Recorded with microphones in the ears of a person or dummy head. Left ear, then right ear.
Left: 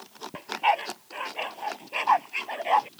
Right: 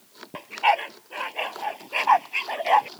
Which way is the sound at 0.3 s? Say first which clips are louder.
Right 3 dB; 10° right (ahead or behind).